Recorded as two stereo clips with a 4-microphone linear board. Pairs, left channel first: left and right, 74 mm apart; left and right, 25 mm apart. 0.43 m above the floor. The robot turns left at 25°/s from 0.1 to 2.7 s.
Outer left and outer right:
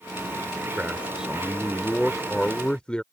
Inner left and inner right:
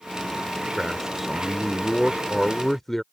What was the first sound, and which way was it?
A man speaking, 150° right.